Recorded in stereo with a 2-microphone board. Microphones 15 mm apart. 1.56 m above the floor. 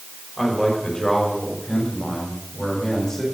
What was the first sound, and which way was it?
A man speaking, 35° left (ahead or behind).